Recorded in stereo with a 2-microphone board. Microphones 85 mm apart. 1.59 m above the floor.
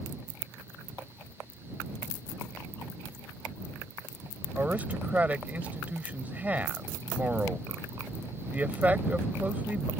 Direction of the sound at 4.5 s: 20° right (ahead or behind).